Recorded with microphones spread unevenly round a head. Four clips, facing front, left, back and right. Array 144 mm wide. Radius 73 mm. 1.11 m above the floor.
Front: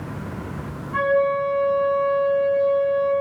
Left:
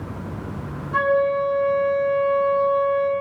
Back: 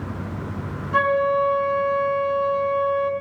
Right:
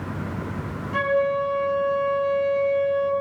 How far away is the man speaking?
I don't hear a man speaking.